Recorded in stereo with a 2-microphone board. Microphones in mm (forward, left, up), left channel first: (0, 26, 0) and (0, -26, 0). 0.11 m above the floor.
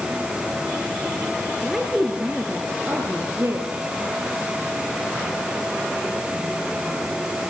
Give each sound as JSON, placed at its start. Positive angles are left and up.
{"t": 1.6, "sound": "a woman speaking", "side_deg": 5, "distance_m": 2.0}